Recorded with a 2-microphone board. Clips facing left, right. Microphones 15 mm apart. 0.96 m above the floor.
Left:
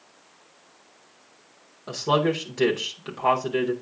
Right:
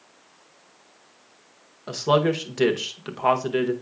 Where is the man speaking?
10° right (ahead or behind), 0.8 m.